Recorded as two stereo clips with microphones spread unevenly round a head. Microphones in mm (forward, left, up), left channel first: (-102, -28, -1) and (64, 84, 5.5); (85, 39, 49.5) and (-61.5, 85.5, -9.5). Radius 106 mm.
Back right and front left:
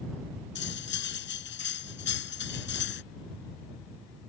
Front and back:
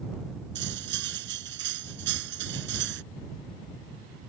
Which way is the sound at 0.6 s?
Straight behind.